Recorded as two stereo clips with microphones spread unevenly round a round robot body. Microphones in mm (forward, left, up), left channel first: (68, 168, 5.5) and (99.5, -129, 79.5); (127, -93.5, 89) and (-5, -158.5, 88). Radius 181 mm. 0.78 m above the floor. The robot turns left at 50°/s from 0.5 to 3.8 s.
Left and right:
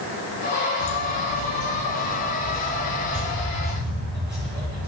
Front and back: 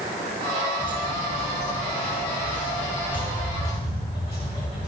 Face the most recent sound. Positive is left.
turn(degrees=-25)